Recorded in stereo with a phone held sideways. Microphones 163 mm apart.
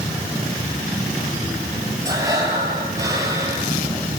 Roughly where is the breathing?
Centre.